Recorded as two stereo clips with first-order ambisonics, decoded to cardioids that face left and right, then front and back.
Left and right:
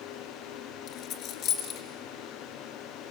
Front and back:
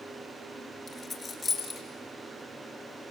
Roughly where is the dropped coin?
Left.